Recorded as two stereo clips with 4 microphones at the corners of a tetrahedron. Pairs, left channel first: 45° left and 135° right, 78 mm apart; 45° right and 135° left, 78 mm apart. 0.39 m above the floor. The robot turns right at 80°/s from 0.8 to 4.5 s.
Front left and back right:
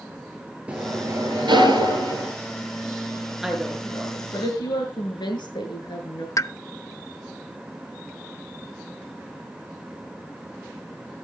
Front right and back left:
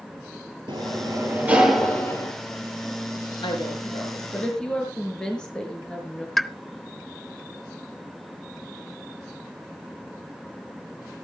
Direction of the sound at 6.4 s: 45° left.